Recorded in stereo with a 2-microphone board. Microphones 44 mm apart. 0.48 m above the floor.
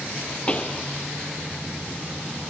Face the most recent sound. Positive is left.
turn(degrees=25)  # may be behind; listen again after turning